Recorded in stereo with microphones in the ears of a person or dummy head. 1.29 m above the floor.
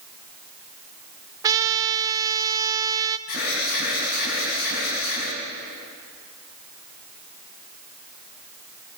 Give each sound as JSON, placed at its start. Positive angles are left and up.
{"t": 1.4, "sound": "a trumpet", "side_deg": -20, "distance_m": 0.9}
{"t": 3.3, "sound": "an alarm", "side_deg": 55, "distance_m": 6.0}